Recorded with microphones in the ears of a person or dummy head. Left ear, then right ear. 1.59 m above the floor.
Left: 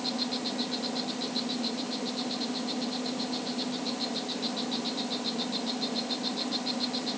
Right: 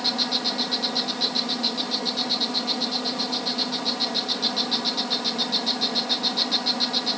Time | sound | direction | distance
0.0 | an insect | 55° right (ahead or behind) | ?